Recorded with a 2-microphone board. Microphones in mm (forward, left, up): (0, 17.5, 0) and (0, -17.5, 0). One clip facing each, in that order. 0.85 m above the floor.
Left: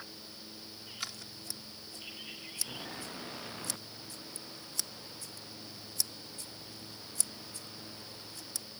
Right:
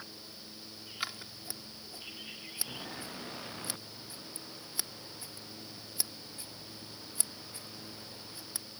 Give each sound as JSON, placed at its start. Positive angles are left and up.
{"t": 1.0, "sound": "scissors", "side_deg": -20}